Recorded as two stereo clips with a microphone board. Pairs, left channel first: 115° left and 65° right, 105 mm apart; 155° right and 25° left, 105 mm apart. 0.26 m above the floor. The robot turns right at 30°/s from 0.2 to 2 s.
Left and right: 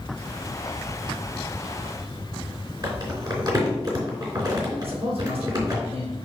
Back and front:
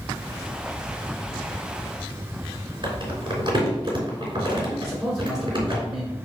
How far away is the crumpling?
About 3.5 m.